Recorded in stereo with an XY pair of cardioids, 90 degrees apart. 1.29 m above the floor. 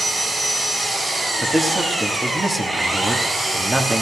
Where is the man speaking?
20° right, 2.5 m.